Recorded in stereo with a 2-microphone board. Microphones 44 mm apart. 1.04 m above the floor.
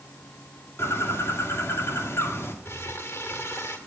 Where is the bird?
70° left (ahead or behind), 2 m.